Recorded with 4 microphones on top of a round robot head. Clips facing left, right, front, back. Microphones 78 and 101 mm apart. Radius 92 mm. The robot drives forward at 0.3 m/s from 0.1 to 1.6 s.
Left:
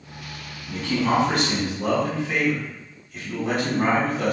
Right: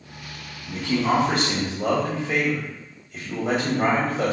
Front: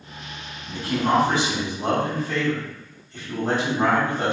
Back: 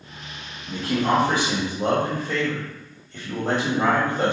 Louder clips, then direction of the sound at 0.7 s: Even, even; 155° right.